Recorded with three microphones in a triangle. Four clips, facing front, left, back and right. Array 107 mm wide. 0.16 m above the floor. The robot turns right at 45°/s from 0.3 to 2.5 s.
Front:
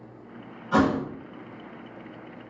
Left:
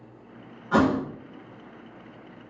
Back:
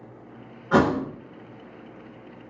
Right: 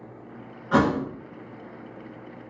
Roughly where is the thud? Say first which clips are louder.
Even, back 2 dB; behind right.